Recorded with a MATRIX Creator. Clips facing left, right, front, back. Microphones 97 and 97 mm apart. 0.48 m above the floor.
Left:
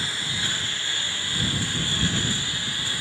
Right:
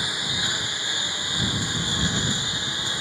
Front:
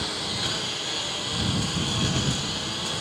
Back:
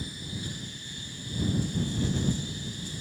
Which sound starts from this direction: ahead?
A lawn mower, at 0.0 s.